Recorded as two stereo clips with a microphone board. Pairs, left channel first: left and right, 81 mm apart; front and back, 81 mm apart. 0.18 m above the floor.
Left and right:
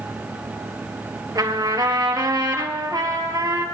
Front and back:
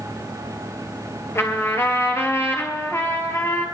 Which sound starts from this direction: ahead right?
A trumpet, at 1.4 s.